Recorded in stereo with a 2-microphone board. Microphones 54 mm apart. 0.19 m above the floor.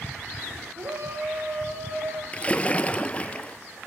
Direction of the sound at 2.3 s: 25° left (ahead or behind).